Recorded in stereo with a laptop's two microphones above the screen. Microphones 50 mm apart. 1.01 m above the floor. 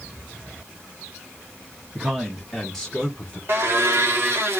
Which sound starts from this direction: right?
A blender, at 3.5 s.